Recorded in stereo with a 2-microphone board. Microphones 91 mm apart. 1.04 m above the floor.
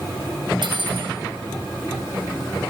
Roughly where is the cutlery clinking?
Right.